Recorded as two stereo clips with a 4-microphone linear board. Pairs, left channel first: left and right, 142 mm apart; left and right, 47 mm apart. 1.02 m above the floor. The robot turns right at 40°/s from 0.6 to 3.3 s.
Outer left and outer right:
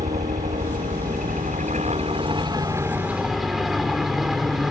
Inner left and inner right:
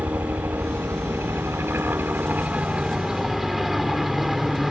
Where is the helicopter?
110° right; by 4.7 s straight ahead.